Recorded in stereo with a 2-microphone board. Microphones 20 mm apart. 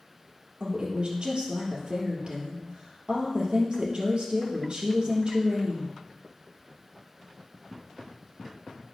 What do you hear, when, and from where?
0.6 s a woman speaking: 55° right (ahead or behind), 3 m